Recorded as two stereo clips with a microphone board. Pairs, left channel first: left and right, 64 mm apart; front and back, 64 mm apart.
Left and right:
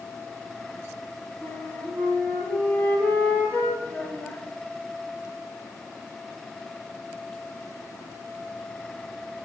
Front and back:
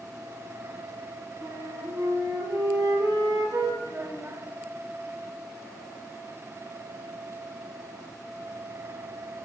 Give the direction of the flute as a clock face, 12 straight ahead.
7 o'clock.